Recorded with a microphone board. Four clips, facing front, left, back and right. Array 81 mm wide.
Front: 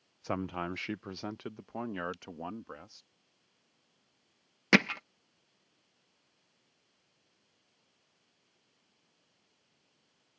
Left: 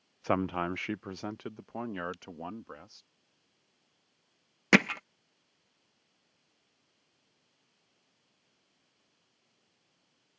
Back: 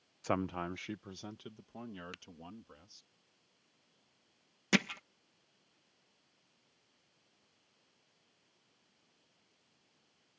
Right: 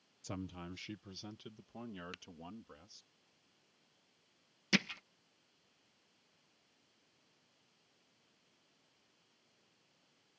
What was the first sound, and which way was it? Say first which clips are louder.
A man speaking: left 16 dB, even; 100° left.